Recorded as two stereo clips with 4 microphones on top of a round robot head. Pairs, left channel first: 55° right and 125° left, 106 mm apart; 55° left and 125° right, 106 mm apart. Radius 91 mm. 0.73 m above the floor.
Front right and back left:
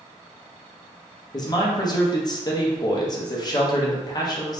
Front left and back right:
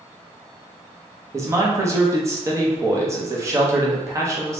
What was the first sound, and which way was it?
A man speaking, 80° right.